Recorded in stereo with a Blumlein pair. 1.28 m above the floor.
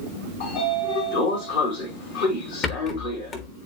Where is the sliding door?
55° left, 4 m.